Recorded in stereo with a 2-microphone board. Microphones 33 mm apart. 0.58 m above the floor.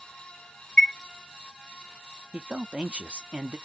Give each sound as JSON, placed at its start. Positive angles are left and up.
{"t": 0.8, "sound": "a chime", "side_deg": 30, "distance_m": 0.8}
{"t": 2.3, "sound": "a man speaking", "side_deg": -30, "distance_m": 0.7}